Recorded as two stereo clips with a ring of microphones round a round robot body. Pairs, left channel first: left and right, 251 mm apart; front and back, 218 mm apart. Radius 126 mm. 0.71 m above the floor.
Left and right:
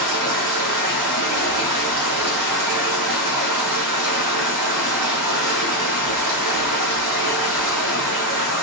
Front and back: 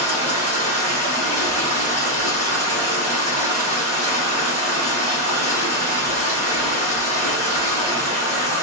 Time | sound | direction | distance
0.0 | running water | 105° right | 2 m